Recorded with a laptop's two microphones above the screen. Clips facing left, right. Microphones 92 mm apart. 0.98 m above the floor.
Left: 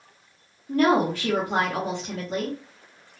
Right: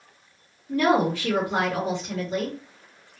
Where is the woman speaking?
55° left (ahead or behind), 1.7 m.